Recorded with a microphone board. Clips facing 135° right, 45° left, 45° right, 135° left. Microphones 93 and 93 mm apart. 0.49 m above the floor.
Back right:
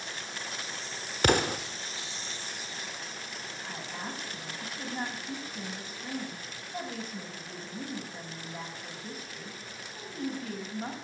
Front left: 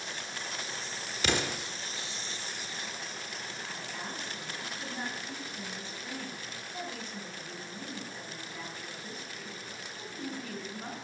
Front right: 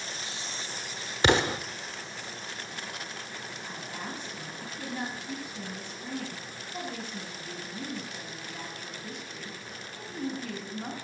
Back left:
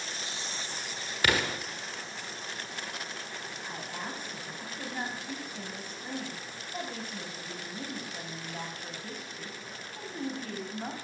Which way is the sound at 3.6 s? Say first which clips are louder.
Back right 4 dB, back left 1 dB; straight behind.